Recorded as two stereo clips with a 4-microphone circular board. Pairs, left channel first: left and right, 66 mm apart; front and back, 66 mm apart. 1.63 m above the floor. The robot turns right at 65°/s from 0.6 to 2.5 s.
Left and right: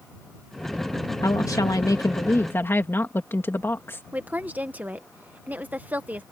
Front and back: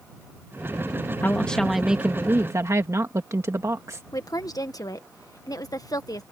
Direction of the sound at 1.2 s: 60° left.